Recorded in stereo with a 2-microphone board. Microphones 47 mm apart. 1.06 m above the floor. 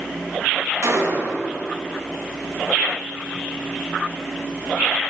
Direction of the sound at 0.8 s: 85° right.